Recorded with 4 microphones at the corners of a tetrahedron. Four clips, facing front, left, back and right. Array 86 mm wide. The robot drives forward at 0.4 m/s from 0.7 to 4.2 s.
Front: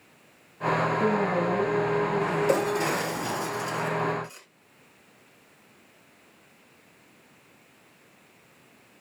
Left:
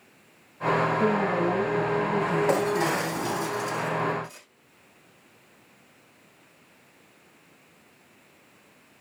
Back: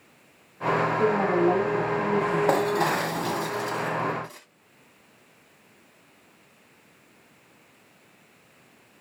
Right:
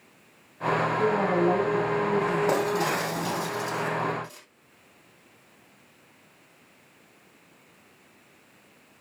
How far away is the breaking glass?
About 2.5 m.